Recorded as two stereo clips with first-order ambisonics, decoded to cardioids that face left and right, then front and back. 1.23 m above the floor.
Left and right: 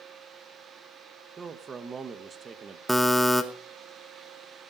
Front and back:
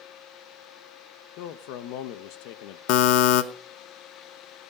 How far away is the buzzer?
About 1.0 m.